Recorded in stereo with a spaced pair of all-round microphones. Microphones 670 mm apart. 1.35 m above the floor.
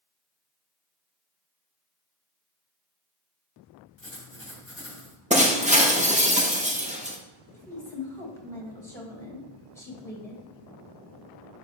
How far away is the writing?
About 1.3 m.